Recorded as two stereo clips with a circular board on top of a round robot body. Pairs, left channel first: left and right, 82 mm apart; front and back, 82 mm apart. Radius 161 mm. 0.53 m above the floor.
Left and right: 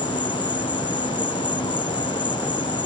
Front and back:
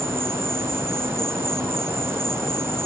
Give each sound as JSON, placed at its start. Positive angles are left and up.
{"t": 0.0, "sound": "an insect", "azimuth_deg": 120}